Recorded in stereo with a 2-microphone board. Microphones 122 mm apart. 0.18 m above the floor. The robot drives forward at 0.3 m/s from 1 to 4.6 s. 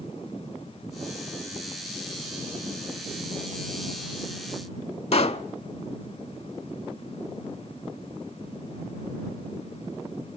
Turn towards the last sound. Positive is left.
turn(degrees=60)  # may be behind; listen again after turning